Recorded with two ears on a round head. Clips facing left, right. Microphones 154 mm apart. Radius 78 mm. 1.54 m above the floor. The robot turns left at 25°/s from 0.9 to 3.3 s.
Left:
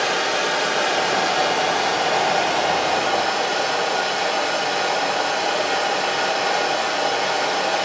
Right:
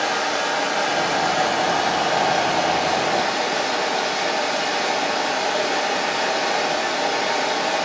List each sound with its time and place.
0.0 s running water: 50° left, 1.5 m; by 7.8 s 10° right, 1.5 m